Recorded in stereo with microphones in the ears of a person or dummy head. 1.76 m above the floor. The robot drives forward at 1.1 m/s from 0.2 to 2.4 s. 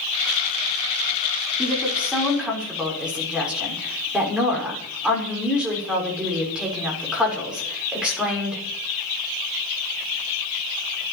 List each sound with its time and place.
1.6 s a woman speaking: centre (ahead or behind), 5.5 m